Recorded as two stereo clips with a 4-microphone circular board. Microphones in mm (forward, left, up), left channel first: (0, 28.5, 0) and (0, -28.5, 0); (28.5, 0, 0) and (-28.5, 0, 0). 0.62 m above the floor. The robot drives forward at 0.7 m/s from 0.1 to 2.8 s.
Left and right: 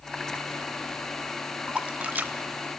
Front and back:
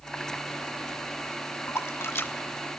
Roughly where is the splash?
Ahead.